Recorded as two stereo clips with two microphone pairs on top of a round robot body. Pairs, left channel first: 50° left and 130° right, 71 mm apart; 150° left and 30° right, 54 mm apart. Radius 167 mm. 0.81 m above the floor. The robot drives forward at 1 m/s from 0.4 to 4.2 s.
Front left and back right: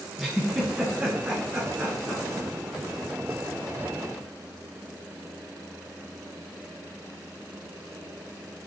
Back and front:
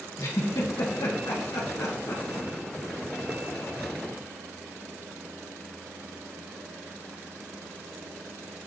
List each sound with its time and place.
0.2 s a giggle: 145° left, 1.2 m; by 2.5 s 165° left, 3 m